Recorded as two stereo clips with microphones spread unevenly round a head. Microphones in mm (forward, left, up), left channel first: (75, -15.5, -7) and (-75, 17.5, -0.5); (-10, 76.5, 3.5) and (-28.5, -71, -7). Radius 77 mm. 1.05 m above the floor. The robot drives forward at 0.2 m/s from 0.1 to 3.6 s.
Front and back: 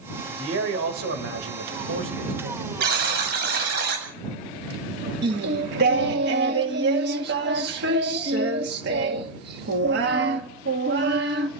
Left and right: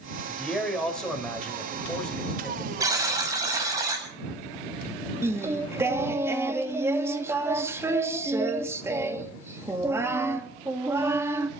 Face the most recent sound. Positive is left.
turn(degrees=-170)